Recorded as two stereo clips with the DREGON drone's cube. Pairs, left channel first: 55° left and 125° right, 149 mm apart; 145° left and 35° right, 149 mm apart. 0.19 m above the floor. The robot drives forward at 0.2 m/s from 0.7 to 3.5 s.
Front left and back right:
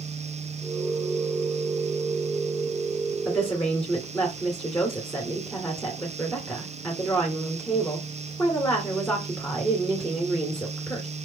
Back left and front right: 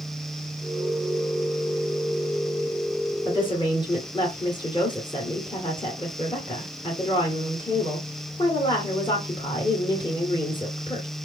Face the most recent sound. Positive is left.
turn(degrees=140)